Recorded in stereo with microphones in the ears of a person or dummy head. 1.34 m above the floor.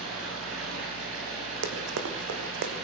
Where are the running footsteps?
60° right (ahead or behind), 2.5 m; by 2.7 s 50° right (ahead or behind), 2.5 m.